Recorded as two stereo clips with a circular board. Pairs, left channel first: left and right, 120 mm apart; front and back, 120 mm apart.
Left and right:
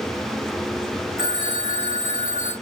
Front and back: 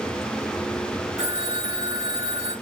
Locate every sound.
1.2 s a phone ringing: 160° left, 3.5 m